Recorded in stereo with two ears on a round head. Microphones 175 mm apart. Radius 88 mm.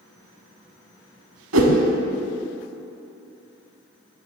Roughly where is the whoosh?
Right.